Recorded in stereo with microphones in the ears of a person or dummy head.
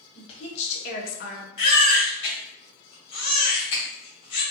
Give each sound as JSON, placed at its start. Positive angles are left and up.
{"t": 0.1, "sound": "a woman speaking", "side_deg": 30, "distance_m": 1.2}
{"t": 1.6, "sound": "a baby crying", "side_deg": 30, "distance_m": 1.0}